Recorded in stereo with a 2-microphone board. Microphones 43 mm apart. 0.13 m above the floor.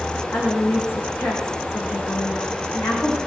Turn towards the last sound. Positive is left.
turn(degrees=80)